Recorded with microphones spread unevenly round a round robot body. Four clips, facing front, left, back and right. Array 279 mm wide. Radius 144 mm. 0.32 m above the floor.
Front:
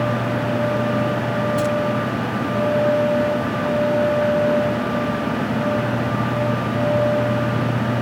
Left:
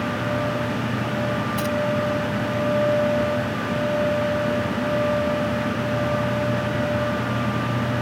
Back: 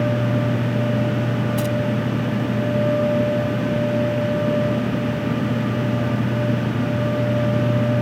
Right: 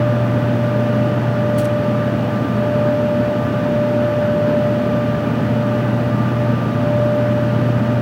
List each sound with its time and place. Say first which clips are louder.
1.6 s keys jangling: right 7 dB, front 4 dB; 175° right